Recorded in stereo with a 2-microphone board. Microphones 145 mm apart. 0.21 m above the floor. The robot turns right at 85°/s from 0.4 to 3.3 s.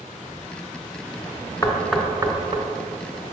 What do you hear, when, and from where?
1.6 s knocking: 25° left (ahead or behind), 1.3 m; by 2.6 s 50° right (ahead or behind), 1.3 m